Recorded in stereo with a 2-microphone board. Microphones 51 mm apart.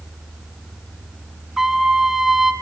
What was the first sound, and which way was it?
A trumpet, 10° right (ahead or behind).